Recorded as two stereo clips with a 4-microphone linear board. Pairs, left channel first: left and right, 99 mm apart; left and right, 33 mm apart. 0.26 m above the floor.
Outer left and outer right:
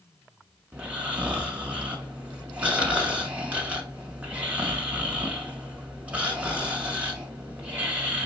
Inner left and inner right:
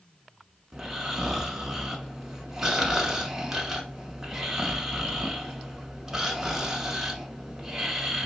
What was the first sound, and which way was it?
Snoring, 15° right (ahead or behind).